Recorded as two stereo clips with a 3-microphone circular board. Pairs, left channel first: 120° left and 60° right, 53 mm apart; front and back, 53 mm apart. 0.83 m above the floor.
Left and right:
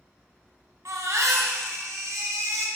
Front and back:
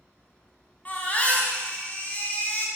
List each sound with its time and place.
0.8 s a baby crying: 60° right, 2.5 m